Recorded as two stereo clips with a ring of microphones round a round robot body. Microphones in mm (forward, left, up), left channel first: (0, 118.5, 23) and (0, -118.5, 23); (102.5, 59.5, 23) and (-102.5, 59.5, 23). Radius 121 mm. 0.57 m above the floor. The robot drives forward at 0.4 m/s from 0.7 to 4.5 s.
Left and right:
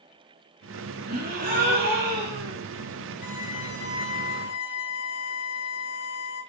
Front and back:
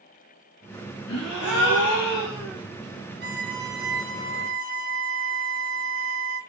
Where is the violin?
145° left, 1.5 m; by 6.4 s 155° left, 1.9 m.